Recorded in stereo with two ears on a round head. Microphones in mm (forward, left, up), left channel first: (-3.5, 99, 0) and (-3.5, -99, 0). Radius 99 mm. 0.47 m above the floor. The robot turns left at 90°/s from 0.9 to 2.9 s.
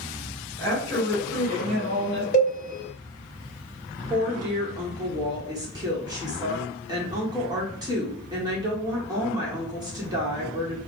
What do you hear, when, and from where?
0.6 s a woman speaking: 20° left, 1.8 m; by 2.2 s 100° right, 1.8 m
2.3 s a cowbell: 45° left (ahead or behind), 1.2 m; by 2.5 s 25° left (ahead or behind), 1.2 m
4.1 s a woman speaking: 20° right (ahead or behind), 1.1 m